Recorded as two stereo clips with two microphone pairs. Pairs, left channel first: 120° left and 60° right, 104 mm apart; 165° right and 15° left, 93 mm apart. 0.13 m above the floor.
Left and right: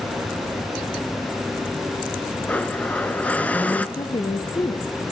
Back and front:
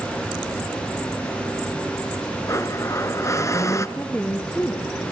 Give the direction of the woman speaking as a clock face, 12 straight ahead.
8 o'clock.